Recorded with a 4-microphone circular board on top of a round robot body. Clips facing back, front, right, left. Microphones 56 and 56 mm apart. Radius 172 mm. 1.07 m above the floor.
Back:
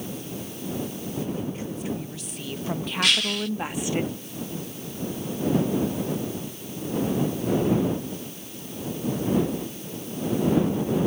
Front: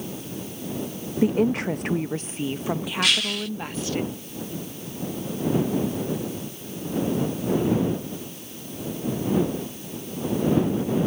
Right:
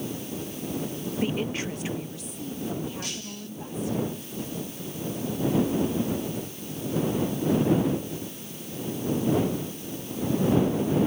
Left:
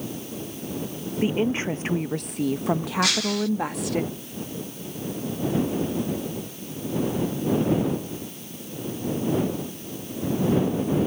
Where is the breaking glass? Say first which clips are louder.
Back 1 dB, left 13 dB; 90° left.